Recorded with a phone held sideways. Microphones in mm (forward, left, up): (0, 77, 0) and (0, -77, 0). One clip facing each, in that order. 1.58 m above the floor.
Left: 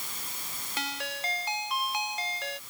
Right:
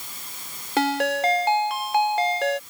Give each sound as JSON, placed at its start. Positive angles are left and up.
{"t": 0.8, "sound": "a ringtone", "side_deg": -80}